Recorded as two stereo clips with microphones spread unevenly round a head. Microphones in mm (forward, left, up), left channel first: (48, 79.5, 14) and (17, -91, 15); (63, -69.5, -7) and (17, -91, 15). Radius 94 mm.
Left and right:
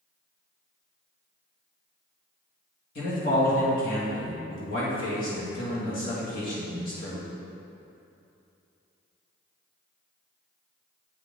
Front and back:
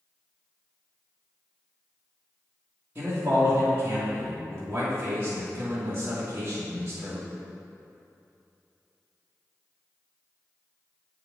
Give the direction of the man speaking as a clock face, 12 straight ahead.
8 o'clock.